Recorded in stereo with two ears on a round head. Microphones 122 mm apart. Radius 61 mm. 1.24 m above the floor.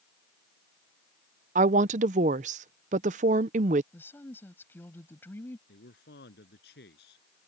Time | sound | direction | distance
1.6 | a woman speaking | 55° right (ahead or behind) | ?
3.9 | a woman speaking | 15° left (ahead or behind) | ?
5.7 | a man speaking | 80° left | ?